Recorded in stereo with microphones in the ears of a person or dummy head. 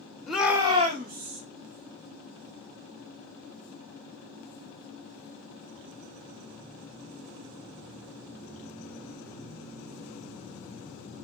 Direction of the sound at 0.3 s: 5° left (ahead or behind).